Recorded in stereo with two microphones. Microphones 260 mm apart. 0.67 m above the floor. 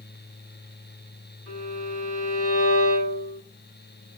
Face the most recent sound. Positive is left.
turn(degrees=-55)  # may be behind; listen again after turning